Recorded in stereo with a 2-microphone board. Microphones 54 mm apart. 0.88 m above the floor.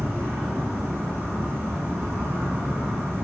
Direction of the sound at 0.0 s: 40° right (ahead or behind).